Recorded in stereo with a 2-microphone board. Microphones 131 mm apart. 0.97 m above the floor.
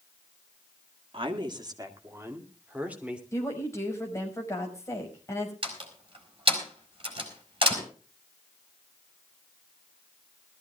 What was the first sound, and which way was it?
A woman speaking, 40° right (ahead or behind).